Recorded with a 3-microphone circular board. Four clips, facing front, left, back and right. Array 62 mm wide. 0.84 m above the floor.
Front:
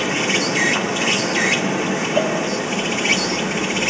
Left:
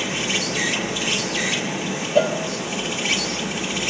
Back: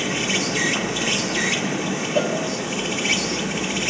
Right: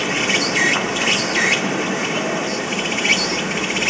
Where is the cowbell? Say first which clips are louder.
Left 3 dB, front 2 dB; 100° left, 3 m.